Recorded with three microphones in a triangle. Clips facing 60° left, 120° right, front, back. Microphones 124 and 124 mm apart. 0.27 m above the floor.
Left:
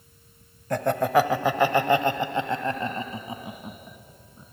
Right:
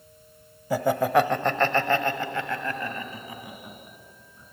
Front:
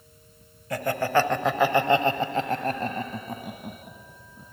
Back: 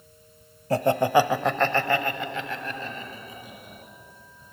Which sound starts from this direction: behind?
Laughter, at 0.7 s.